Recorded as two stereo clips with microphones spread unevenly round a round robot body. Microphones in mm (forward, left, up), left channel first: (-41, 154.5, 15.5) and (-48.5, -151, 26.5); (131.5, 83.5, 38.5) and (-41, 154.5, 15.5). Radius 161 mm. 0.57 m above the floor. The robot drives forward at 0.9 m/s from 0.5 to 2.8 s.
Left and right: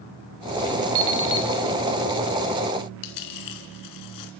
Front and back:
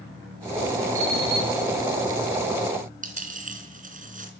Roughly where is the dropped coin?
Left.